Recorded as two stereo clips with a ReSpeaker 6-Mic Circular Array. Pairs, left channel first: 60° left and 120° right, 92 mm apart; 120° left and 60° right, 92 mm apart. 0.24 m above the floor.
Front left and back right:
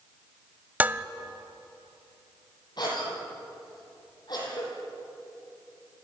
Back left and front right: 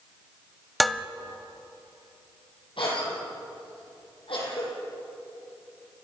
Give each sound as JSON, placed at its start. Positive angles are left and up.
{"t": 0.8, "sound": "dishes clattering", "azimuth_deg": -155, "distance_m": 0.6}
{"t": 2.8, "sound": "a cough", "azimuth_deg": 100, "distance_m": 8.0}